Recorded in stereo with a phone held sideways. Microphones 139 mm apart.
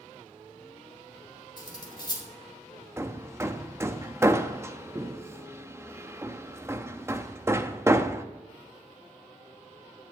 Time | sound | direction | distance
1.6 | cutlery clinking | 30° left (ahead or behind) | 2.5 m
3.0 | hammering | 20° right (ahead or behind) | 0.6 m